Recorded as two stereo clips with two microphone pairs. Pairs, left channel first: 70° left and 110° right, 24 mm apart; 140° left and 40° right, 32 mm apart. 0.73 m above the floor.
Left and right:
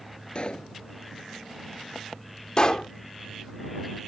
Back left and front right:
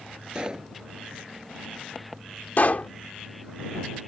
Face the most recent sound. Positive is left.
turn(degrees=120)